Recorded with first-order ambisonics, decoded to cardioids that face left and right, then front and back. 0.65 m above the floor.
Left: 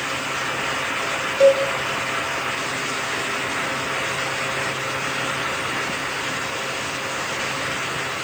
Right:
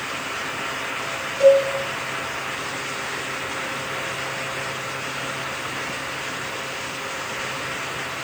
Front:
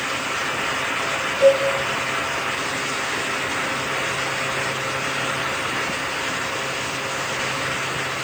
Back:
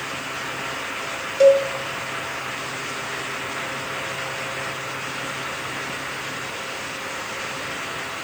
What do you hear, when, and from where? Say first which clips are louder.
1.4 s a cowbell: right 1 dB, back 2 dB; 155° left, 0.7 m